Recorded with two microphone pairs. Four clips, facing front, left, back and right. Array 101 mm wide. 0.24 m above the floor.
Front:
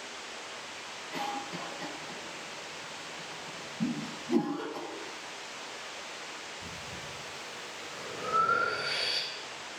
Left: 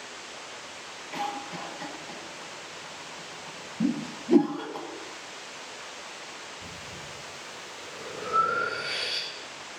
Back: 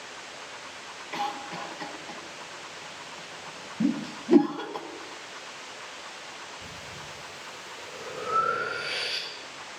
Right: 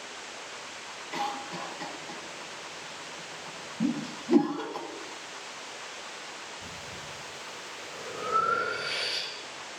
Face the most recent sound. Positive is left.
turn(degrees=150)